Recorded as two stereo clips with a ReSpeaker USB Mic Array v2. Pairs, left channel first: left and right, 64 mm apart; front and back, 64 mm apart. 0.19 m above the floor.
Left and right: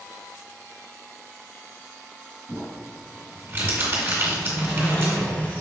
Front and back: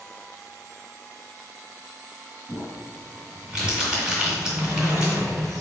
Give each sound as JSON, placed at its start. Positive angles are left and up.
{"t": 2.5, "sound": "crumpling", "azimuth_deg": -110, "distance_m": 1.9}
{"t": 4.2, "sound": "a sliding door", "azimuth_deg": 155, "distance_m": 1.3}